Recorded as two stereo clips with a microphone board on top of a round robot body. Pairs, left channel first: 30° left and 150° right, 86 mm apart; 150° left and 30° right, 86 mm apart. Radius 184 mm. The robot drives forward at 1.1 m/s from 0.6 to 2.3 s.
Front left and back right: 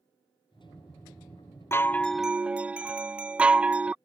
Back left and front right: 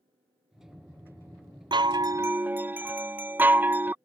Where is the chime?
25° right; by 4.0 s 80° right.